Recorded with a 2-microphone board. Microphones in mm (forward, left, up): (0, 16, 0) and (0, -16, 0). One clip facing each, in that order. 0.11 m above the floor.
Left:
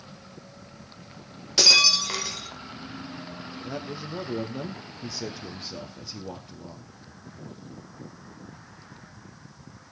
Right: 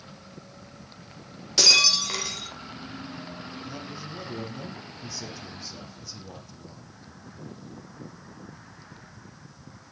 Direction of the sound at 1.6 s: 10° left (ahead or behind).